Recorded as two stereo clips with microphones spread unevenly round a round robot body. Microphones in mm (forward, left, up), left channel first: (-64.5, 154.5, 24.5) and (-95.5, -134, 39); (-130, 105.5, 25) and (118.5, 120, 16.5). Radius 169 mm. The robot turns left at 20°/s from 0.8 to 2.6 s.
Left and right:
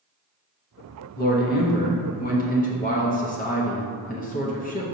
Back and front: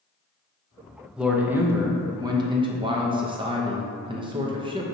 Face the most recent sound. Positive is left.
turn(degrees=55)